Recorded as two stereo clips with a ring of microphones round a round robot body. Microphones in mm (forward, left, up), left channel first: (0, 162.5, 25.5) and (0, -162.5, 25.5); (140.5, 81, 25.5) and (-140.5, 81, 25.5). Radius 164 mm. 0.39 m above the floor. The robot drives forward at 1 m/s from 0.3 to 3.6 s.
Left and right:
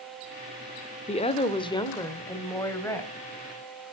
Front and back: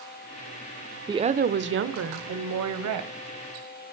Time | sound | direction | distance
1.1 | a woman speaking | 125° left | 1.0 m